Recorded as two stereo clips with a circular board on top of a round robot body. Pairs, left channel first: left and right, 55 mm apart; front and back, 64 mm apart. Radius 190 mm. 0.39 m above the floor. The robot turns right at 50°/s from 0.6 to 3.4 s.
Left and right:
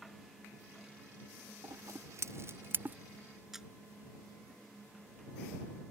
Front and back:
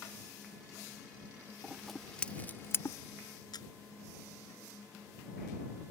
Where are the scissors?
100° right; by 3.0 s 35° right.